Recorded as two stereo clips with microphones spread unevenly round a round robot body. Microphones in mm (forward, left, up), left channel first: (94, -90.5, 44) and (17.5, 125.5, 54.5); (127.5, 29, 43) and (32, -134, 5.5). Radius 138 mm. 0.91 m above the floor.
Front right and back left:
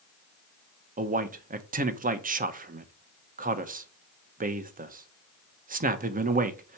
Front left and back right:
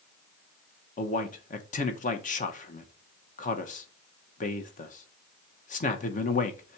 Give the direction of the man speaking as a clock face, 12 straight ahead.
9 o'clock.